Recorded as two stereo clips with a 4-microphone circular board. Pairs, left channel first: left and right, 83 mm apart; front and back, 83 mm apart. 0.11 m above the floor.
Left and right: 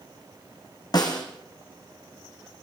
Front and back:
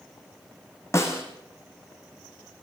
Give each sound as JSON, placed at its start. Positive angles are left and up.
{"t": 0.9, "sound": "a snare drum", "azimuth_deg": 55, "distance_m": 4.0}